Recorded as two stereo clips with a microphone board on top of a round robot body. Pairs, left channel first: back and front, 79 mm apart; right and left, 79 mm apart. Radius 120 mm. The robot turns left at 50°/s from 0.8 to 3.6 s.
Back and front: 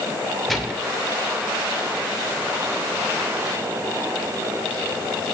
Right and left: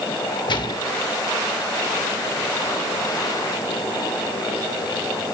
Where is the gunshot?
95° right, 2.5 m; by 0.9 s 100° right, 2.5 m.